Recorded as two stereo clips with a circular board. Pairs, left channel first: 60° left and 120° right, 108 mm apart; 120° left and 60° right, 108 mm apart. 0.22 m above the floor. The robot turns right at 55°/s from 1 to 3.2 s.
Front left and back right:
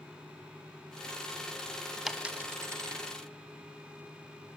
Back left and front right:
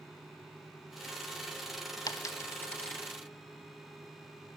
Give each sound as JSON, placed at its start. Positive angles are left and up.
{"t": 2.1, "sound": "a dropped coin", "azimuth_deg": 155, "distance_m": 0.6}